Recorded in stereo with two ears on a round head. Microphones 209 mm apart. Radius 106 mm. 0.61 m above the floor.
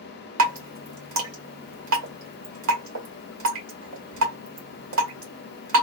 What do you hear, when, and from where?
0.4 s dripping: 65° right (ahead or behind), 1.5 m